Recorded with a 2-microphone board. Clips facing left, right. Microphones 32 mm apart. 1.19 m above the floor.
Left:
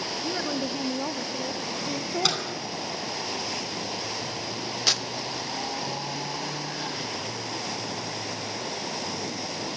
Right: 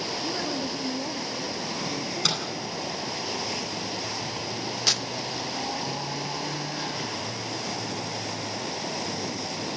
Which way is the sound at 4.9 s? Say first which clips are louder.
Left 1 dB; centre (ahead or behind).